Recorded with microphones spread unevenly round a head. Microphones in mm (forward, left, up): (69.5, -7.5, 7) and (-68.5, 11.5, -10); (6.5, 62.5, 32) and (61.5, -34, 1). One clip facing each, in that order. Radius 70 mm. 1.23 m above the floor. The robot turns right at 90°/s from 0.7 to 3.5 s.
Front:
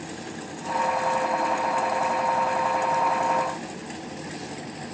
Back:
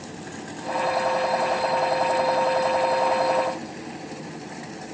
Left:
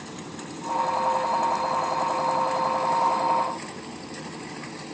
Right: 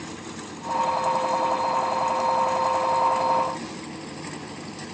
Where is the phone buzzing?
I don't hear a phone buzzing.